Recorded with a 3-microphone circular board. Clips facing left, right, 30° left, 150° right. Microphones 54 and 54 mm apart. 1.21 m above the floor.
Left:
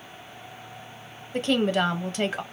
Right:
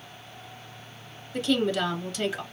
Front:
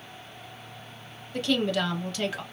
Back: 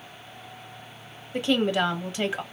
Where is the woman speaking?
140° left, 0.8 m.